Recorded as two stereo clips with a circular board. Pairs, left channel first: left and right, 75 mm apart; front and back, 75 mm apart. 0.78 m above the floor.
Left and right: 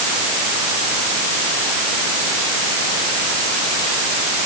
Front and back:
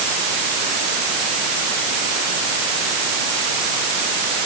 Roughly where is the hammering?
No hammering in this recording.